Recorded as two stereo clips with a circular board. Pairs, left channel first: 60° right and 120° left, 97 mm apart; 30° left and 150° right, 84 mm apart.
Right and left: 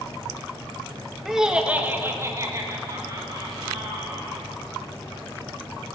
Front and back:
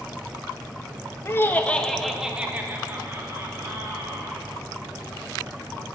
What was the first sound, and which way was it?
Laughter, 35° left.